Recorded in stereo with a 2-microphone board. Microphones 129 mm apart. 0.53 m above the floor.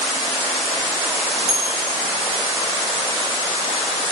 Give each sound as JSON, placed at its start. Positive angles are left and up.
{"t": 1.5, "sound": "a bell", "side_deg": -5, "distance_m": 7.0}